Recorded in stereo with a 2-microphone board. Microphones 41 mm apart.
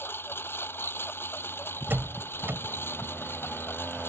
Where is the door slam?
60° right (ahead or behind).